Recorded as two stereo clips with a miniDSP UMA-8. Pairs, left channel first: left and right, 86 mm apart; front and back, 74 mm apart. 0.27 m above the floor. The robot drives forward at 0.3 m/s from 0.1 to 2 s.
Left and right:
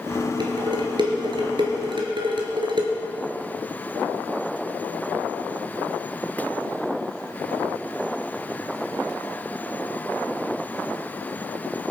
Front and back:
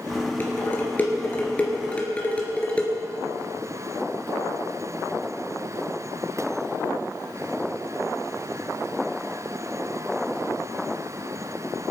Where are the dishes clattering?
65° right, 3 m; by 2.9 s 75° right, 3 m.